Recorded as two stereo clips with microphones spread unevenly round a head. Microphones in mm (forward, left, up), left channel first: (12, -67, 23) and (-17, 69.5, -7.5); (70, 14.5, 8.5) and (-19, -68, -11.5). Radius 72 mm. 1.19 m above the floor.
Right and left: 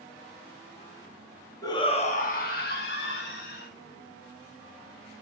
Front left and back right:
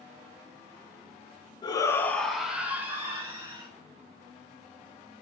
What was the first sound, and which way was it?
A shout, 10° right.